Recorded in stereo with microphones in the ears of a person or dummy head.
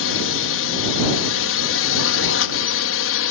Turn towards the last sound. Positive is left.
turn(degrees=65)  # may be behind; listen again after turning